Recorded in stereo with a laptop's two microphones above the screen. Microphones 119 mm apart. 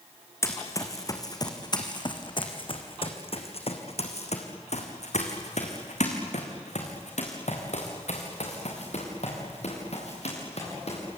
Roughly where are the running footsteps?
Left.